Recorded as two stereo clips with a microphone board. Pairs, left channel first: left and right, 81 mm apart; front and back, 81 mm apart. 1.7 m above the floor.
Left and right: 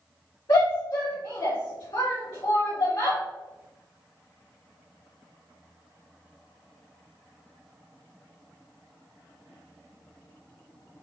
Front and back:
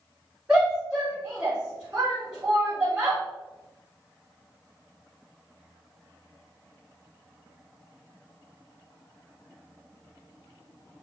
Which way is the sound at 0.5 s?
100° left.